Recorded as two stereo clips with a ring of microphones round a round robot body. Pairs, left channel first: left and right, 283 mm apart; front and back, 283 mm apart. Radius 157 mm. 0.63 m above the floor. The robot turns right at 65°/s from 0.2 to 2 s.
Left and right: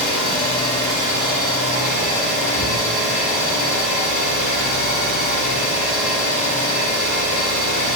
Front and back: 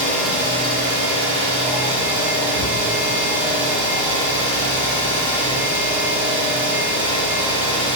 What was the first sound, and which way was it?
An engine running, 85° left.